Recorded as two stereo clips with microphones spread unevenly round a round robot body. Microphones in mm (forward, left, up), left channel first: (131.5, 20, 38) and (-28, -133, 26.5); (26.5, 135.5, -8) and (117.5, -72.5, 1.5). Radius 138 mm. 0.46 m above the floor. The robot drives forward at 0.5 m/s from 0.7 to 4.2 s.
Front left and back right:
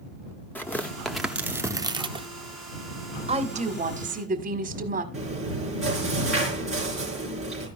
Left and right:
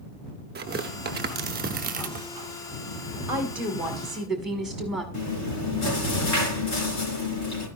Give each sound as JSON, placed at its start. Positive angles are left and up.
{"t": 0.6, "sound": "tearing paper", "azimuth_deg": -40, "distance_m": 1.2}
{"t": 3.3, "sound": "a woman speaking", "azimuth_deg": -145, "distance_m": 1.4}
{"t": 5.1, "sound": "chewing", "azimuth_deg": 135, "distance_m": 4.0}